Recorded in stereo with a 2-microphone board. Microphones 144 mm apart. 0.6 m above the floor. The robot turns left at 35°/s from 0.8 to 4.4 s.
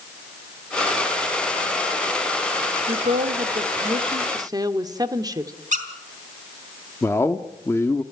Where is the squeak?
60° right (ahead or behind), 2.5 m.